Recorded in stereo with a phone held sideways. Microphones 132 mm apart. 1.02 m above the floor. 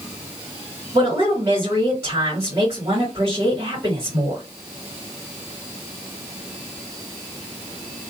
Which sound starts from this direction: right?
A woman speaking, at 0.9 s.